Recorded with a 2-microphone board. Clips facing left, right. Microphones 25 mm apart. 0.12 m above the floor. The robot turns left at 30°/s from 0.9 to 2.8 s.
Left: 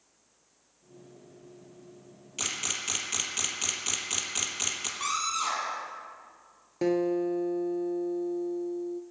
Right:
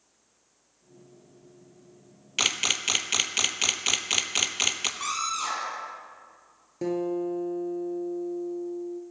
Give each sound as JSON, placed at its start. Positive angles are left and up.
{"t": 2.4, "sound": "a camera shutter", "side_deg": -50, "distance_m": 0.9}
{"t": 5.0, "sound": "a scream", "side_deg": -5, "distance_m": 4.0}
{"t": 6.8, "sound": "a guitar", "side_deg": 30, "distance_m": 0.9}